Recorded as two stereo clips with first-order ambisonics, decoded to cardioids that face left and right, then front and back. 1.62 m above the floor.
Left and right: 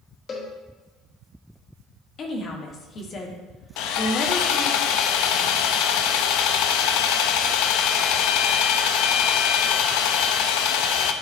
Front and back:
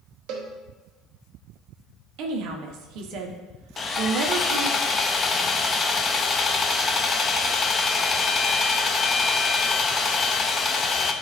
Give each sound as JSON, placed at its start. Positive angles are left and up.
{"t": 0.3, "sound": "a cowbell", "azimuth_deg": 150, "distance_m": 1.3}
{"t": 2.2, "sound": "a woman speaking", "azimuth_deg": 150, "distance_m": 1.2}
{"t": 3.8, "sound": "sawing", "azimuth_deg": 70, "distance_m": 0.5}